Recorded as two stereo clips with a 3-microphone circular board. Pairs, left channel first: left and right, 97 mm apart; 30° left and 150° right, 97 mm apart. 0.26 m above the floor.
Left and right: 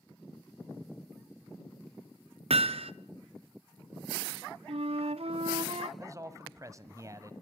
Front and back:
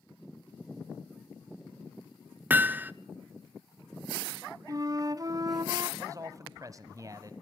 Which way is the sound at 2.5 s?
80° right.